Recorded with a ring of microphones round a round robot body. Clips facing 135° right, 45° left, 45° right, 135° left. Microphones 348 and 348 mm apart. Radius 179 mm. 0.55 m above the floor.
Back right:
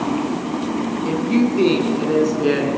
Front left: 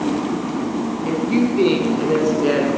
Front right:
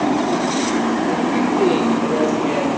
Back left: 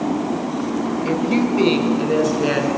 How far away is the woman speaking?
About 6 m.